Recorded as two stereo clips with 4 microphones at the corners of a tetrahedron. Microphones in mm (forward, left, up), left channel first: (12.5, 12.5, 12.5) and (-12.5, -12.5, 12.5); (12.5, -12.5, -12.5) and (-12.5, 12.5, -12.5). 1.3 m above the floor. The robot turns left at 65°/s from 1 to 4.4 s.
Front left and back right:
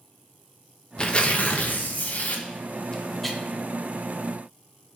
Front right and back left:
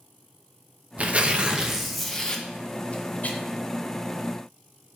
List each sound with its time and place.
1.0 s tearing paper: 105° left, 0.5 m; by 3.4 s 45° right, 0.5 m